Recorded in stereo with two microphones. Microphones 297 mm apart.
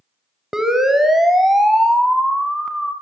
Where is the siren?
Centre (ahead or behind), 3 m.